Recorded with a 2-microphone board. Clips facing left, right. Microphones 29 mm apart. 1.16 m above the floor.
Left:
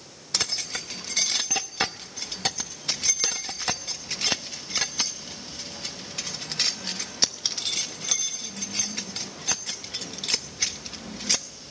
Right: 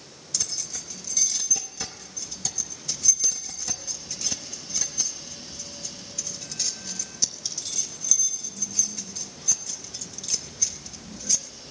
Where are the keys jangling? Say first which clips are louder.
Left 6 dB; 50° left (ahead or behind), 0.8 m.